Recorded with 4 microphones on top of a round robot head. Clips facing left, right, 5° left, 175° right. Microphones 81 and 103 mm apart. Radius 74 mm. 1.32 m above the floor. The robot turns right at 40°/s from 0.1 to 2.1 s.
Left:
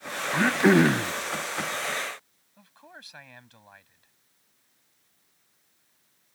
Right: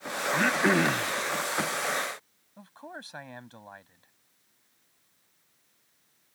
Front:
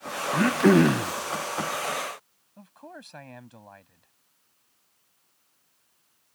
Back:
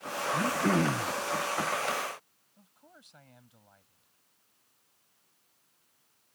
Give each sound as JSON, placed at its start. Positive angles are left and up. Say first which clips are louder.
{"t": 0.3, "sound": "throat clearing", "louder": "left 5 dB, front 9 dB", "azimuth_deg": 10}
{"t": 2.6, "sound": "a man speaking", "louder": "right 6 dB, front 14 dB", "azimuth_deg": -40}